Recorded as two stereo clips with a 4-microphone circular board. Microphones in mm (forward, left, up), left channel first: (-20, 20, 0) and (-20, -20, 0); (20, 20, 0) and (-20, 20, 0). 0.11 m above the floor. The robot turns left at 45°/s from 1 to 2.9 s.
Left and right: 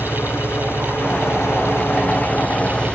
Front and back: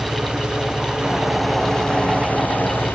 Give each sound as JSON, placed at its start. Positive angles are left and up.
{"t": 0.0, "sound": "an engine running", "azimuth_deg": 110}